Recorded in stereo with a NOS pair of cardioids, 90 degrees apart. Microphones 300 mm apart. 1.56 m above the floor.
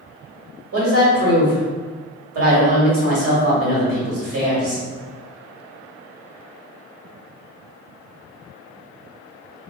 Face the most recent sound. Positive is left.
turn(degrees=-55)